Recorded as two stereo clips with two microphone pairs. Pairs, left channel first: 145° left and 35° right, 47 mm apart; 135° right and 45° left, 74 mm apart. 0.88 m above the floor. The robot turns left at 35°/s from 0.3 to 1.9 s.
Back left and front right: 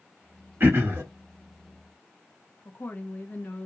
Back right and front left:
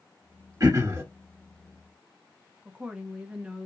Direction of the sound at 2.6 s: 120° left.